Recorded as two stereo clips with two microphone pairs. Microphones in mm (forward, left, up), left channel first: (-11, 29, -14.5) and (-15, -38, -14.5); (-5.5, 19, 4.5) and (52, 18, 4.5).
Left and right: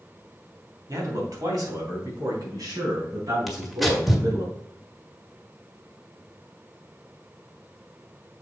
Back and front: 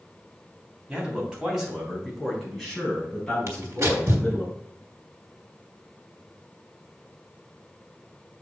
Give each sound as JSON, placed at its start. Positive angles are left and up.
{"t": 0.9, "sound": "a man speaking", "azimuth_deg": -70, "distance_m": 3.0}
{"t": 3.5, "sound": "tearing paper", "azimuth_deg": -5, "distance_m": 1.6}